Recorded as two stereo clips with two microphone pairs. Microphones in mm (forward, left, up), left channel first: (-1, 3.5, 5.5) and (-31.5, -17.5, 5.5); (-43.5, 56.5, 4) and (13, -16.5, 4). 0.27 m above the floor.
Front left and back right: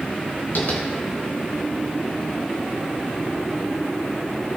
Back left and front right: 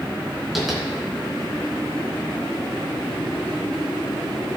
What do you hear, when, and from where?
0.6 s tapping: 35° left, 3.5 m